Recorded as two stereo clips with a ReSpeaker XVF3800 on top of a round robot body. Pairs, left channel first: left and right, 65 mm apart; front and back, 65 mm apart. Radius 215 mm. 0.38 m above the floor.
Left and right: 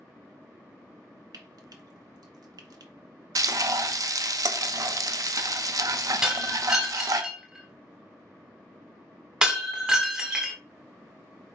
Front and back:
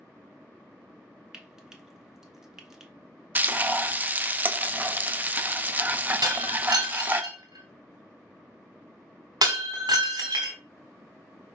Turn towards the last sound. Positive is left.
turn(degrees=-170)